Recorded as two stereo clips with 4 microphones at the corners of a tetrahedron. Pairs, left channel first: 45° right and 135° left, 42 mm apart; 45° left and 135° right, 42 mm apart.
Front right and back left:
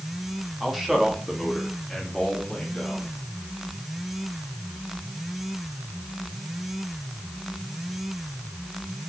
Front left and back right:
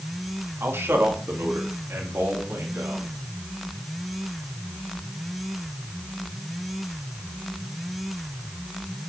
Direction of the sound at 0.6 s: 145° right.